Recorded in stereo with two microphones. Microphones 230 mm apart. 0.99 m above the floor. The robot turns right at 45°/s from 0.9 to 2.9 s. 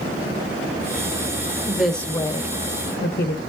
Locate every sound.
1.7 s a woman speaking: 10° right, 0.8 m; by 3.4 s 45° left, 0.8 m